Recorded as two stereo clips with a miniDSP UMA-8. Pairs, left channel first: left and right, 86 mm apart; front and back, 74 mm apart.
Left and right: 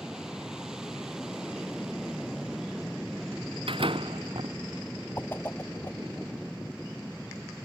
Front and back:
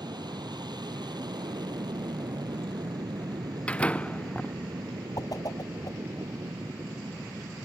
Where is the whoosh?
25° left.